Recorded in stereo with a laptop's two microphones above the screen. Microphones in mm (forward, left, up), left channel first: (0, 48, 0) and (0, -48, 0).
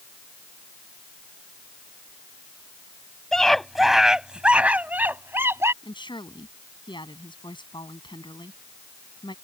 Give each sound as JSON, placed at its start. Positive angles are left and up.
{"t": 3.3, "sound": "a scream", "side_deg": 5}
{"t": 5.8, "sound": "a woman speaking", "side_deg": 55}